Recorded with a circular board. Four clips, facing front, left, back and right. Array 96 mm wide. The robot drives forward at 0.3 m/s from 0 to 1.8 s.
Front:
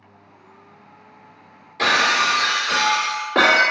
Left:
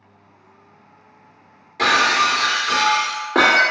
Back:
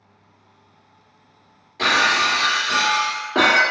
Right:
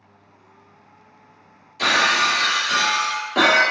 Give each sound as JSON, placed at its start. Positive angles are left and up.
{"t": 1.8, "sound": "breaking glass", "azimuth_deg": 95, "distance_m": 1.3}